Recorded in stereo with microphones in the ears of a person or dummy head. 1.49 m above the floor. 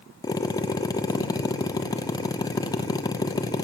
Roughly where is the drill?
Left.